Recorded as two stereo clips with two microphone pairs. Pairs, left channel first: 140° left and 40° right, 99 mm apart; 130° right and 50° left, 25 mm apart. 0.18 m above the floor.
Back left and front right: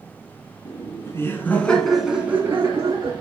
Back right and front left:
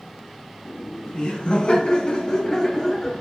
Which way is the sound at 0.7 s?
175° right.